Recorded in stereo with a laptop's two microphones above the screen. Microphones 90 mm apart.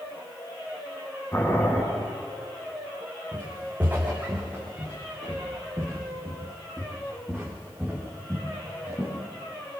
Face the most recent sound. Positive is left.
turn(degrees=0)  # may be behind; listen again after turning